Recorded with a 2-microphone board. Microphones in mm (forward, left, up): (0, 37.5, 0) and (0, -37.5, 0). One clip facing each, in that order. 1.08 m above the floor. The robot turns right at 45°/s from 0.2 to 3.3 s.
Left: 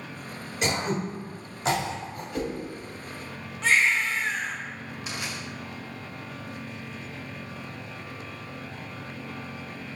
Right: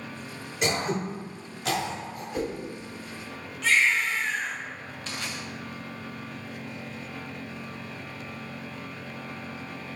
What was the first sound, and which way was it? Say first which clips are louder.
Throat clearing: even; centre (ahead or behind).